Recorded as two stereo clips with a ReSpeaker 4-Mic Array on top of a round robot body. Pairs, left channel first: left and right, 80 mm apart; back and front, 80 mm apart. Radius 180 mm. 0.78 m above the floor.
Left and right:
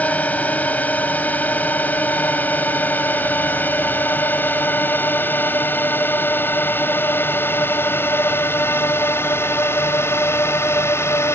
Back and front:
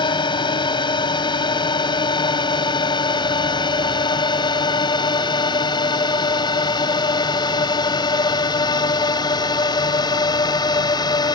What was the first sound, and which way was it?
A drone, 160° left.